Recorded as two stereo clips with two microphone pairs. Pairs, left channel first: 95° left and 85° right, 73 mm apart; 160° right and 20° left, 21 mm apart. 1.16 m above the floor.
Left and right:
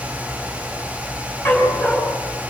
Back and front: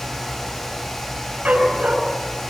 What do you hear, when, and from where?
1.4 s a dog barking: 30° left, 4 m